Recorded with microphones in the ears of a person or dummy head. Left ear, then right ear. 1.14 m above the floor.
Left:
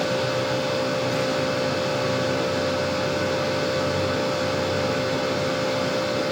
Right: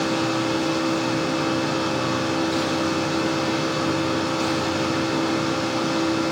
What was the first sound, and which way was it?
A machine running, 65° left (ahead or behind).